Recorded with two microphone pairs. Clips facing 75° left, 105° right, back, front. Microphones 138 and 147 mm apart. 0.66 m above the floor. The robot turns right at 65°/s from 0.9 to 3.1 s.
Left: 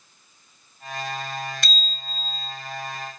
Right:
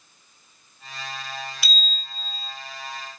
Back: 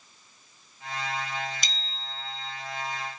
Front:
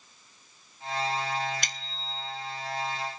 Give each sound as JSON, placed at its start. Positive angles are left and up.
{"t": 1.6, "sound": "a bicycle bell", "azimuth_deg": -25, "distance_m": 3.0}